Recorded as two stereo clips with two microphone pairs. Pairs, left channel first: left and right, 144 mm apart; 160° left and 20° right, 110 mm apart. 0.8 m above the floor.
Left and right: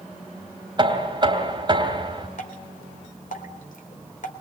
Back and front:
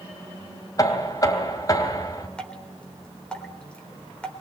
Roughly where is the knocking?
Behind right.